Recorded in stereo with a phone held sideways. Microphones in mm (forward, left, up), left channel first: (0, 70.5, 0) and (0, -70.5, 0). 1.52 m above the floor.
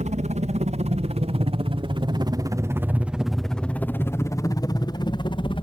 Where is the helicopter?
60° right (ahead or behind); by 5.6 s 40° left (ahead or behind).